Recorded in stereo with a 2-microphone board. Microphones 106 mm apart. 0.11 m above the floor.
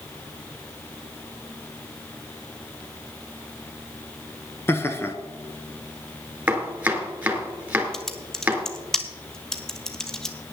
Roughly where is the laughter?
Left.